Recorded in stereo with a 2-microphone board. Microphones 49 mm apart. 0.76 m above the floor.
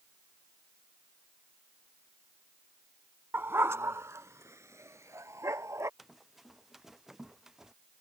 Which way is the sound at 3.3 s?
50° right (ahead or behind).